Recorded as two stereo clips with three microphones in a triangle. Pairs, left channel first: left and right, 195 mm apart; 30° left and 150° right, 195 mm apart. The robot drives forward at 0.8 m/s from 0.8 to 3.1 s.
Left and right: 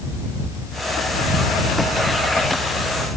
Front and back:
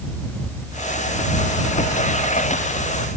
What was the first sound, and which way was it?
Only background noise.